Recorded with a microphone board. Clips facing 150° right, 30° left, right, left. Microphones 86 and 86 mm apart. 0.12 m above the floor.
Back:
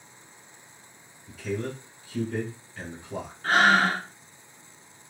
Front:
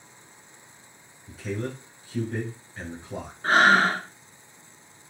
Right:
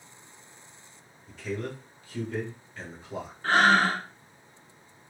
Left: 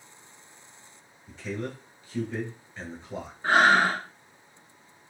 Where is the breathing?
40° left, 0.7 m.